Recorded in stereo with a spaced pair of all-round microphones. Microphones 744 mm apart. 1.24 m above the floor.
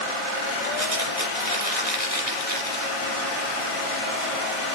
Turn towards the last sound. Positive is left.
turn(degrees=-50)  # may be behind; listen again after turning